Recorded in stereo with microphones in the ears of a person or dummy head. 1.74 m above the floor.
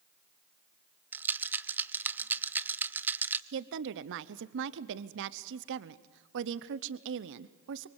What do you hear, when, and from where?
1.1 s a rattle: 15° right (ahead or behind), 0.8 m
3.5 s a woman speaking: 65° right (ahead or behind), 0.7 m